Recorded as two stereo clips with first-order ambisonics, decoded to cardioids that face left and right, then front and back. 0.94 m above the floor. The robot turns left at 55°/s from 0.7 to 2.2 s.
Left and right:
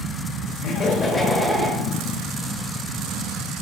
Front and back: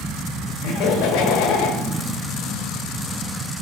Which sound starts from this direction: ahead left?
Laughter, at 0.6 s.